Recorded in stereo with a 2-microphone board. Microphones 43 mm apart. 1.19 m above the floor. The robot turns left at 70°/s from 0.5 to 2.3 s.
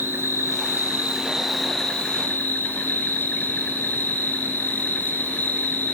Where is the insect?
105° right, 3.5 m; by 6.0 s 130° left, 3.5 m.